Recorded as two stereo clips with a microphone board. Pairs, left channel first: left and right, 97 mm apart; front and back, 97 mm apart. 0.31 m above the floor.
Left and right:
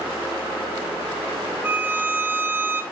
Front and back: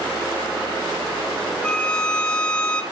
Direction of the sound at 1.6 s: 65° right.